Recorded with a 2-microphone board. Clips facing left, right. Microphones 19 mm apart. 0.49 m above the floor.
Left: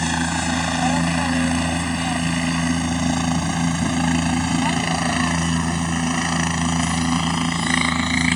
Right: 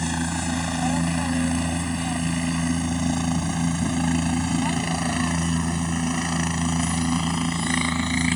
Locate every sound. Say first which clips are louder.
0.0 s a helicopter: left 5 dB; 25° left (ahead or behind); by 8.4 s 15° left (ahead or behind)